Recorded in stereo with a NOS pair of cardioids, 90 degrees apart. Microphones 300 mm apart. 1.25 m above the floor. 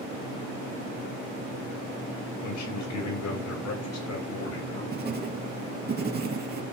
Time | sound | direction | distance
2.4 | a man speaking | 70° left | 7 m
4.9 | writing | 30° right | 2.5 m